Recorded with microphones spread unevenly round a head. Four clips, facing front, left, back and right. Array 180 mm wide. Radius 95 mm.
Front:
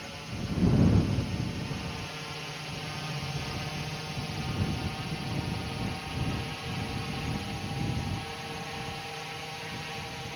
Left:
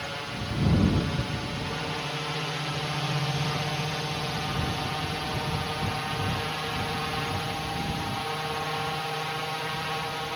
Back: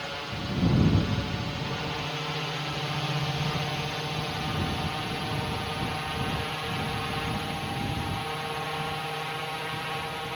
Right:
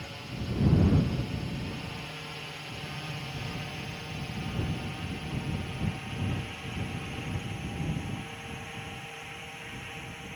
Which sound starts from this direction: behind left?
A drone, at 0.0 s.